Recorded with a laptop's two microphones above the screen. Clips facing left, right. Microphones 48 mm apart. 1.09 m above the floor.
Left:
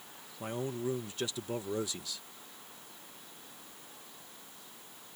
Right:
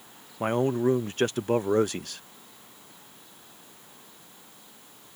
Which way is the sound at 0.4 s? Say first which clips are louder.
Right 12 dB; 55° right (ahead or behind).